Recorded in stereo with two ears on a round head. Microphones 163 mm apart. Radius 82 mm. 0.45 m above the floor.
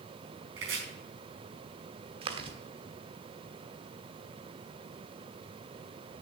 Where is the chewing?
30° right (ahead or behind), 1.3 m.